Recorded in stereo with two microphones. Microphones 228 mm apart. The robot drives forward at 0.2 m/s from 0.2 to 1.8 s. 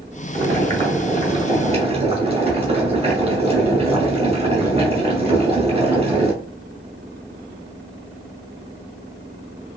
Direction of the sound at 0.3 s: 25° right (ahead or behind).